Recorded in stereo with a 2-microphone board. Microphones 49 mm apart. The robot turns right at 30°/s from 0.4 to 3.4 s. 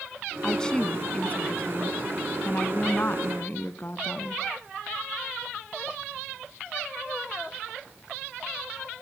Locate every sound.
0.4 s a woman speaking: 20° left, 1.5 m; by 4.4 s 105° left, 1.5 m